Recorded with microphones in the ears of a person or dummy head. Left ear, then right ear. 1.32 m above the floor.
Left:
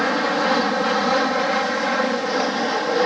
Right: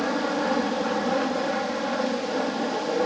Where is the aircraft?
60° left (ahead or behind).